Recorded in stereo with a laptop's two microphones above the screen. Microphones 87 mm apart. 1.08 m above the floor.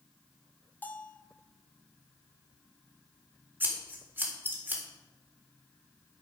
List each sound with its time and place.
0.8 s a bell: 20° left (ahead or behind), 1.4 m
3.6 s scissors: 20° right (ahead or behind), 4 m